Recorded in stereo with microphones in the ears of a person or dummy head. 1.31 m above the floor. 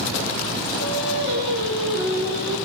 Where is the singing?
70° right (ahead or behind), 6 m.